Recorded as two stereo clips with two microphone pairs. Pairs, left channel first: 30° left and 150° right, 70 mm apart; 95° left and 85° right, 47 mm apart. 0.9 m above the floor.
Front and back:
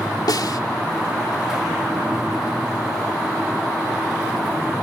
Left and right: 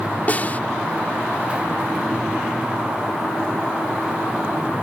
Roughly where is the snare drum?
Ahead left.